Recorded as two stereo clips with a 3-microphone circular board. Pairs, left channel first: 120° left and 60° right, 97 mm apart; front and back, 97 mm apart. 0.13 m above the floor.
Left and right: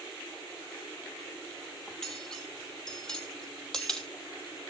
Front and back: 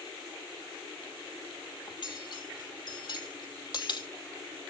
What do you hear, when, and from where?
1.9 s cutlery clinking: 40° left, 2 m